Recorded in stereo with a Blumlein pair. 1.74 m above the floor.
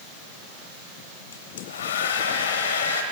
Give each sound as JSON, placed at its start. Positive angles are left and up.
{"t": 1.3, "sound": "a hair dryer", "azimuth_deg": 60, "distance_m": 0.9}